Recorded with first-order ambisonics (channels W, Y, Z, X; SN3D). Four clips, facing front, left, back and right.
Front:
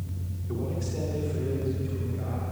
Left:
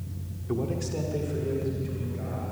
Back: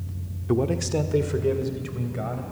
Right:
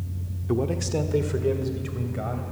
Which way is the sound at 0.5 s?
160° right.